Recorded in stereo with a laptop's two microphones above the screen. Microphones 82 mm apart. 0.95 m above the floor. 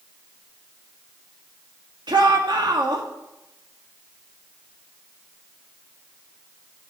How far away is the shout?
About 1.7 m.